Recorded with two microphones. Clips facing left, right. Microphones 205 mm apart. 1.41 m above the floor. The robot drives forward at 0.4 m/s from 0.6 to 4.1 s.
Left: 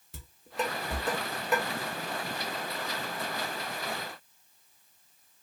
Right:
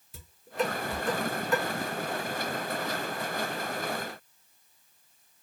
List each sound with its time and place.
0.1 s dishes clattering: 75° left (ahead or behind), 1.5 m; by 1.6 s 60° left (ahead or behind), 1.6 m